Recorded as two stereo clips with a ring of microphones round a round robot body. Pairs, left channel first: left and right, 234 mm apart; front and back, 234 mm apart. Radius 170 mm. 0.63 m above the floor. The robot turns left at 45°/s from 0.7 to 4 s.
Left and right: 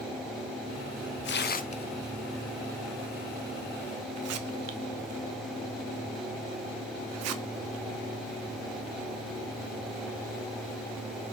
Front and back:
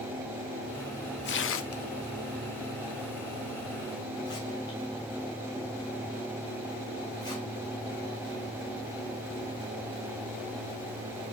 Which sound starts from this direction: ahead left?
Tearing paper, at 1.2 s.